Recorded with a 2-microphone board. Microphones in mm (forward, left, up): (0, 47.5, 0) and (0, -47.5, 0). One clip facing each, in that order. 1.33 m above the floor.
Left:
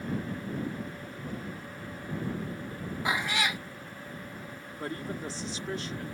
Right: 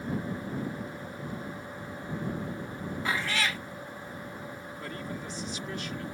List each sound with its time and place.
3.0 s a cat meowing: 15° left (ahead or behind)
4.8 s a man speaking: 30° left (ahead or behind)